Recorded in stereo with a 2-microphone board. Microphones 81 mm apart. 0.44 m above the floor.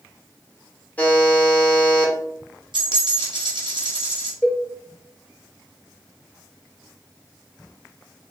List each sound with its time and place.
1.0 s a buzzer: 20° left (ahead or behind), 1.0 m
2.7 s a dropped coin: 75° right (ahead or behind), 1.4 m
4.4 s a cowbell: 10° left (ahead or behind), 0.8 m